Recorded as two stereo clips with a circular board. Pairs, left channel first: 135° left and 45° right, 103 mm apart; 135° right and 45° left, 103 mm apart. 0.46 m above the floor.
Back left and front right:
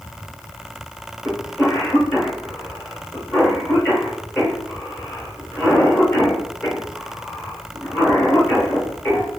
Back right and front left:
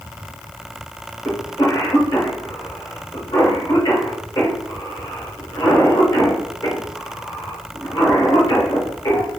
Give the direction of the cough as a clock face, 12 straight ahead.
5 o'clock.